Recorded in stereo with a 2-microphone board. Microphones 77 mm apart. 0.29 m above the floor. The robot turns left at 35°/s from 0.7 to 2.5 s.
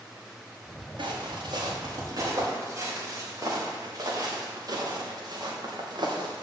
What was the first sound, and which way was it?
Footsteps, 85° right.